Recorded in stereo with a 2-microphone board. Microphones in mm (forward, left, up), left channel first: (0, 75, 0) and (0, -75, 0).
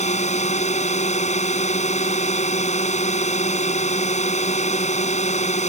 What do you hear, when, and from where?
0.0 s a drone: 50° left (ahead or behind)